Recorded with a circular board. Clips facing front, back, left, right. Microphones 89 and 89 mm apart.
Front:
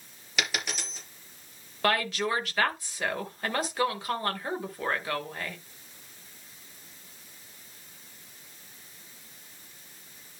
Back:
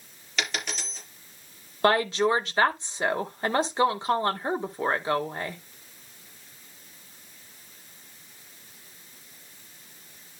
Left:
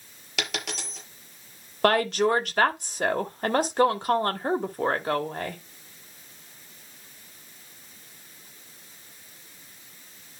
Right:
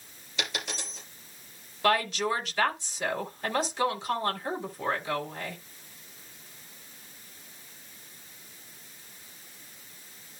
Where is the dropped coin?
85° left, 4 m.